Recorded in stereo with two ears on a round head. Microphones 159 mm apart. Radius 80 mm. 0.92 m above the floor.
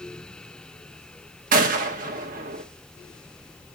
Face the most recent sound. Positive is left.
turn(degrees=-50)  # may be behind; listen again after turning